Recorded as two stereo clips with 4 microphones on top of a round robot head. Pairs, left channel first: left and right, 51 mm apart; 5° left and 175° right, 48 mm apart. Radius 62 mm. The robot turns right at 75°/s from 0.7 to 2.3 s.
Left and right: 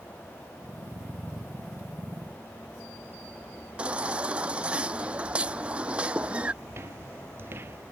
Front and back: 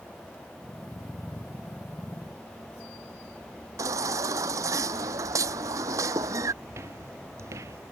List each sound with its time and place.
3.8 s a baby crying: 160° right
6.6 s footsteps: 135° right; by 7.8 s 145° right